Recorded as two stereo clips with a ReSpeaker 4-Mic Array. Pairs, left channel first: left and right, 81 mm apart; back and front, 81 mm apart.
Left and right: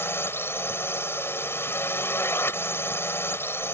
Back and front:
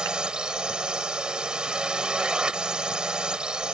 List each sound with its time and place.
0.0 s a drone: 70° left